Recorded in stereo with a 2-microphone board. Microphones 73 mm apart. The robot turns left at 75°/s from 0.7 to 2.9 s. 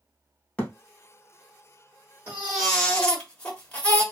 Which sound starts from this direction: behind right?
A baby crying, at 2.3 s.